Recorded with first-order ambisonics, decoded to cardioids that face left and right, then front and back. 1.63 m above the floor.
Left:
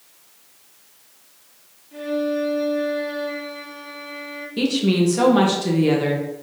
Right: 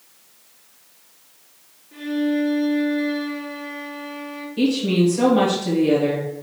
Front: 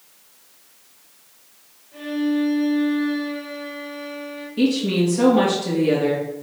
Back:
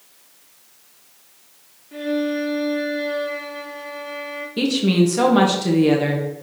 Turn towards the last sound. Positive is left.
turn(degrees=145)